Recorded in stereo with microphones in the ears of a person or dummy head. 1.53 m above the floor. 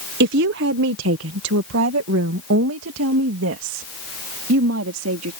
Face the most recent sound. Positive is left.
turn(degrees=-80)